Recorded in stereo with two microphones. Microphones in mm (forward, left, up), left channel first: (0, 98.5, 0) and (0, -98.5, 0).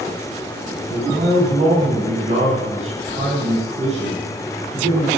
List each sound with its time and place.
0.9 s a man speaking: 30° right (ahead or behind), 9.5 m